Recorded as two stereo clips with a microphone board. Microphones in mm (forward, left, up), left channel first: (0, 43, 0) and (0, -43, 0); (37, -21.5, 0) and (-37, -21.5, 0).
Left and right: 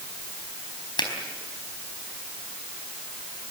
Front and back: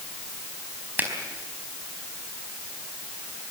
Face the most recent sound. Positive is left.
turn(degrees=115)